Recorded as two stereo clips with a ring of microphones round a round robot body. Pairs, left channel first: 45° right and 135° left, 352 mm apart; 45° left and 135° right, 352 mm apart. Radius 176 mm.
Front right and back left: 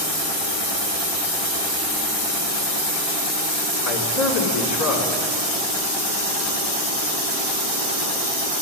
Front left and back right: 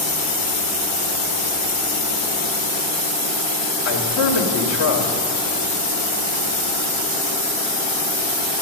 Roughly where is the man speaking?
Ahead.